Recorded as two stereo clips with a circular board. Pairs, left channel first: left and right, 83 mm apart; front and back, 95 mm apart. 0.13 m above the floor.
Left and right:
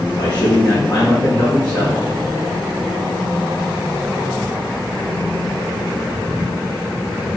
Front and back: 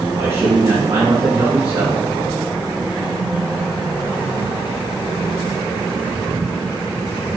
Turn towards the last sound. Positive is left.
turn(degrees=125)